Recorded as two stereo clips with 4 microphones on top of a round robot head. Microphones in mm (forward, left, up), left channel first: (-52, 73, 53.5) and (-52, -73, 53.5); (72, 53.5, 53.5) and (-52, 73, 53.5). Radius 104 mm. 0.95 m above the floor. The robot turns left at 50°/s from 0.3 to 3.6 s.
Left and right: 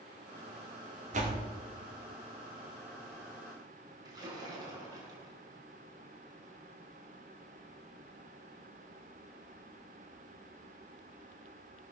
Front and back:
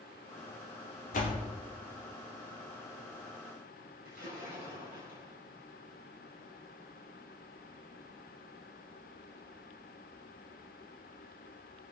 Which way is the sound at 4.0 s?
155° right.